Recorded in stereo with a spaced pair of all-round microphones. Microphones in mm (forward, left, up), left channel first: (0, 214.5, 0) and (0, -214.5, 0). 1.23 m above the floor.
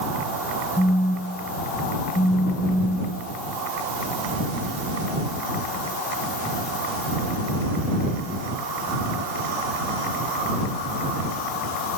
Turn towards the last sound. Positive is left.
turn(degrees=10)  # may be behind; listen again after turning